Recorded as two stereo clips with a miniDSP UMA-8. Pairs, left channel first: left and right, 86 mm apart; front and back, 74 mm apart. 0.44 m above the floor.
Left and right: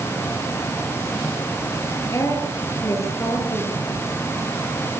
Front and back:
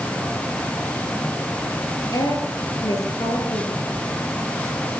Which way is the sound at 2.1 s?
35° left.